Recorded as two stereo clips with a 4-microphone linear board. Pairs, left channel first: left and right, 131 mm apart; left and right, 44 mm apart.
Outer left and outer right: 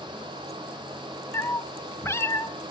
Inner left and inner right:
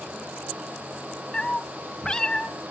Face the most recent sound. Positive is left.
turn(degrees=20)  # may be behind; listen again after turning